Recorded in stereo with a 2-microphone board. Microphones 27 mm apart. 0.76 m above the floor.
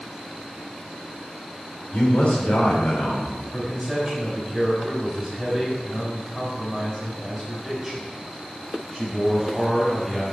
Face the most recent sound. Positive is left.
turn(degrees=5)  # may be behind; listen again after turning